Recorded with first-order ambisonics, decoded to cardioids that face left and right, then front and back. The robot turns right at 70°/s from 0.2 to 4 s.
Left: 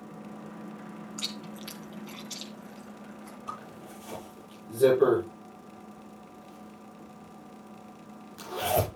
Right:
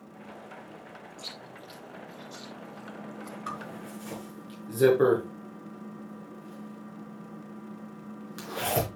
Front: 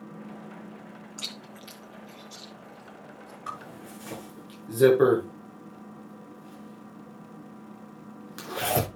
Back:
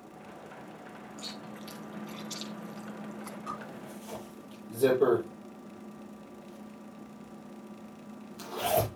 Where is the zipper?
65° right, 6.5 m; by 8.9 s 25° right, 6.5 m.